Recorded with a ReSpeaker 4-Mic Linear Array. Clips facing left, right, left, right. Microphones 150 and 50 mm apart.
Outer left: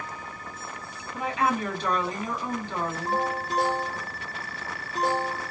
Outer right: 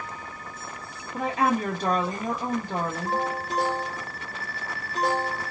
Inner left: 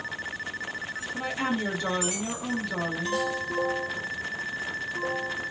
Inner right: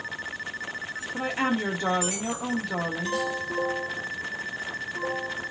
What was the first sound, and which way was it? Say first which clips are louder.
A woman speaking: outer right 2 dB, inner right 3 dB; 45° right (ahead or behind).